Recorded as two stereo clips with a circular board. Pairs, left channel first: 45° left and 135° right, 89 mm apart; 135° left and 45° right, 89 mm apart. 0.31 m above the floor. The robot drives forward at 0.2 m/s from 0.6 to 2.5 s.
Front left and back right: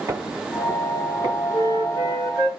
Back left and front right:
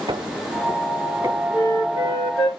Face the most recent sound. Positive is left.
turn(degrees=-165)